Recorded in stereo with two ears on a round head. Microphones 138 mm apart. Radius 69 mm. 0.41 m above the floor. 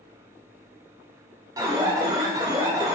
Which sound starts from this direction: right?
An alarm, at 1.6 s.